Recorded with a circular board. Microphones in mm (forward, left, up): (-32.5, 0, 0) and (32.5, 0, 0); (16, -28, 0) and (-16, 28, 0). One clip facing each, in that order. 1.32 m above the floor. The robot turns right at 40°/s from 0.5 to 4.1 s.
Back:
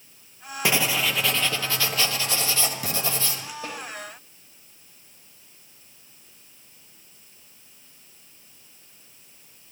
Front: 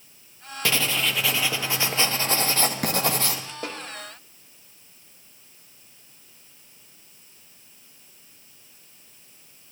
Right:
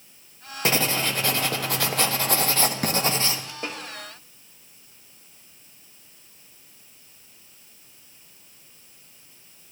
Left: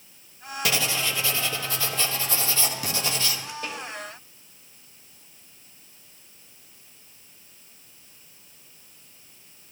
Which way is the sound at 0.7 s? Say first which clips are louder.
Back 1 dB, right 3 dB; 110° right.